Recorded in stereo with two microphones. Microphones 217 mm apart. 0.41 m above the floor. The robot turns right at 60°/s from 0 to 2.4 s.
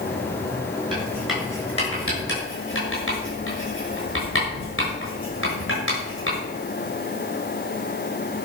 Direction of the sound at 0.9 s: 25° right (ahead or behind).